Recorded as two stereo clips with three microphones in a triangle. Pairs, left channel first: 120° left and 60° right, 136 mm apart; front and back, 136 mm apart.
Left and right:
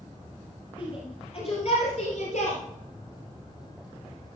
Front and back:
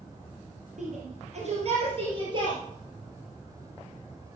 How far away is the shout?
About 3.5 m.